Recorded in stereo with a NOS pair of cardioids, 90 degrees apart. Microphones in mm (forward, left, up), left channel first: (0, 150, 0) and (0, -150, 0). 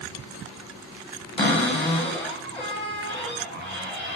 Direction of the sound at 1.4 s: 20° left.